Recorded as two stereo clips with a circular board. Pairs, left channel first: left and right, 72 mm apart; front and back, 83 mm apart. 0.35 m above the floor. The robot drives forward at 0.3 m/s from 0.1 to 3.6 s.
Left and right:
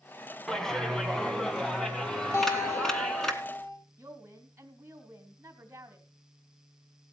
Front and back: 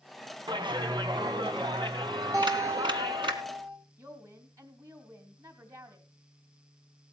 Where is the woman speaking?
145° right, 2.5 m.